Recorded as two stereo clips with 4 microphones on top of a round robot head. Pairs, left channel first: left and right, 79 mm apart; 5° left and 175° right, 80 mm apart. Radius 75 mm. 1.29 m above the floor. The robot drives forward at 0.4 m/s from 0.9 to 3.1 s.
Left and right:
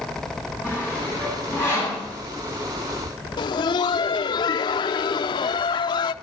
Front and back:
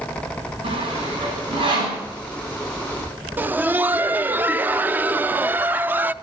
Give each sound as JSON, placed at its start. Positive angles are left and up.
{"t": 0.6, "sound": "sawing", "azimuth_deg": -170, "distance_m": 8.5}
{"t": 3.4, "sound": "laughter", "azimuth_deg": 115, "distance_m": 0.5}